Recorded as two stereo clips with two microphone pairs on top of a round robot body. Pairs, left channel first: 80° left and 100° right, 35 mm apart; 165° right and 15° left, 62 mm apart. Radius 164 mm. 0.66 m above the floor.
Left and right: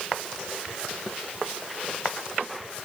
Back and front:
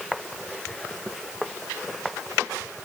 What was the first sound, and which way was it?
Only background noise.